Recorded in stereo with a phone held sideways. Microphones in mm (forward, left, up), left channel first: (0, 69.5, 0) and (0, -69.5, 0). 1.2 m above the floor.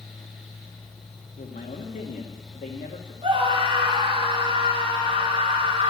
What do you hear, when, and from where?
0.0 s a fan: centre (ahead or behind), 3 m
1.4 s a man speaking: 80° left, 1.6 m
3.2 s a scream: 35° right (ahead or behind), 3.5 m